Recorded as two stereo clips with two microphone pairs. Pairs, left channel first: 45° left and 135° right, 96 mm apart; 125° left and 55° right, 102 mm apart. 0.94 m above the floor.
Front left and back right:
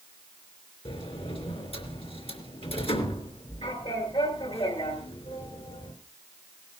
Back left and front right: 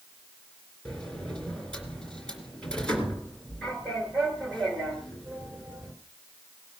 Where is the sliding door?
45° left, 3 m.